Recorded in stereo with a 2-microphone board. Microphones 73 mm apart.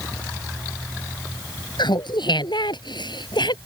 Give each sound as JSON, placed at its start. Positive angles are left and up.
{"t": 1.8, "sound": "laughter", "side_deg": 85}